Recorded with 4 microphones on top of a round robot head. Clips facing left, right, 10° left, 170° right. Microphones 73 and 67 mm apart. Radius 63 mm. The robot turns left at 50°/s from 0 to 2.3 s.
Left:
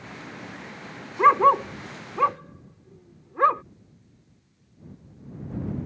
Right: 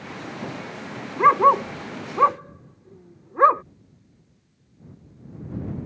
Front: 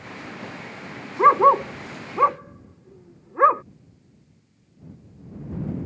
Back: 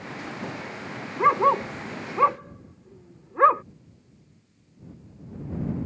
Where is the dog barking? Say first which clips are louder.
Right 1 dB, front 5 dB; 10° right; by 3.6 s 65° right.